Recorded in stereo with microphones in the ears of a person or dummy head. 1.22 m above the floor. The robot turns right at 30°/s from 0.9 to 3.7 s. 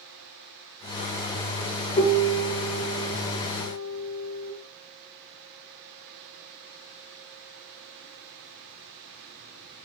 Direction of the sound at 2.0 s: 130° left.